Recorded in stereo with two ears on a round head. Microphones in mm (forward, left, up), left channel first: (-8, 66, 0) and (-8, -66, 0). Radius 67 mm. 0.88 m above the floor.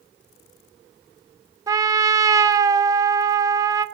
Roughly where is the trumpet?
Right.